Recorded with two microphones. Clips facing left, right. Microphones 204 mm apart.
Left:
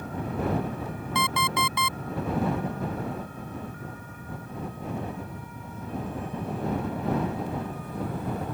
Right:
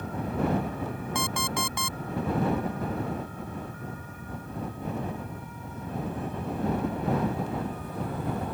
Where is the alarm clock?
50° right (ahead or behind).